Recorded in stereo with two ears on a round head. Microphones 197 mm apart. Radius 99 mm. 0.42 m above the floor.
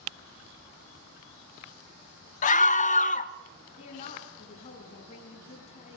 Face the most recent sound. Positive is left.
turn(degrees=30)  # may be behind; listen again after turning